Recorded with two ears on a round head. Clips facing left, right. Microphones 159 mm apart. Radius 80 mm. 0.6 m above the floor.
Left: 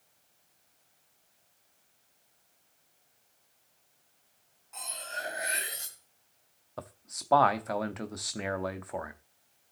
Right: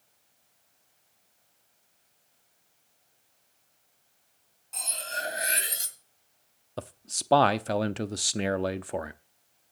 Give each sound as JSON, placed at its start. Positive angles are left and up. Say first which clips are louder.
{"t": 4.7, "sound": "cutlery clinking", "louder": "right 4 dB", "side_deg": -40, "distance_m": 2.0}
{"t": 6.8, "sound": "a man speaking", "louder": "right 5 dB", "side_deg": -35, "distance_m": 0.7}